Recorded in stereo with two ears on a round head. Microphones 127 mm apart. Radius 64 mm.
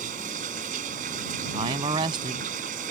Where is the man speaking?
35° right (ahead or behind).